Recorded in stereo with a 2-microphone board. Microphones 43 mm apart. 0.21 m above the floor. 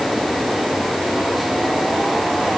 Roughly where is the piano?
I don't hear a piano.